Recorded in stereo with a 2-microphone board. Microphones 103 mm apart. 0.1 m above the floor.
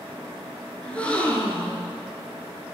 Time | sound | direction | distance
0.8 | a gasp | 10° left (ahead or behind) | 0.8 m